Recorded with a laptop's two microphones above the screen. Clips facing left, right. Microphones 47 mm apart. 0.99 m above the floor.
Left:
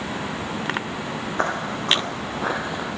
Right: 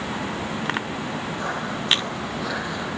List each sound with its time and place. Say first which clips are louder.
1.4 s footsteps: left 6 dB; 65° left (ahead or behind), 2.5 m; by 2.9 s 15° left (ahead or behind), 1.0 m